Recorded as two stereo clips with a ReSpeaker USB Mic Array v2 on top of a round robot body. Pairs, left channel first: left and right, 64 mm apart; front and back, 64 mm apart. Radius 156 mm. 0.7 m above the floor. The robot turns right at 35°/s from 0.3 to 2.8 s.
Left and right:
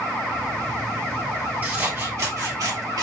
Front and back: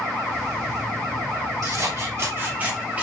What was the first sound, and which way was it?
Scissors, 155° right.